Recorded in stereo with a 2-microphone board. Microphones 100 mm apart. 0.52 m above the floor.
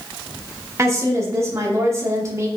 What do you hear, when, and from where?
0.8 s a woman speaking: 30° right (ahead or behind), 0.8 m